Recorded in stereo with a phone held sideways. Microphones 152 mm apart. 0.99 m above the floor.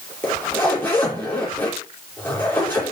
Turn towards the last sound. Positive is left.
turn(degrees=15)  # may be behind; listen again after turning